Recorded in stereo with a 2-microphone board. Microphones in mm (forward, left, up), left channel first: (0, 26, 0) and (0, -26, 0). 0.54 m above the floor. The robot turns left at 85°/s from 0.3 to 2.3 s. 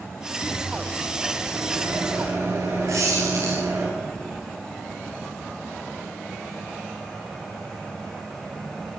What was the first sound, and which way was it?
A microwave, 50° left.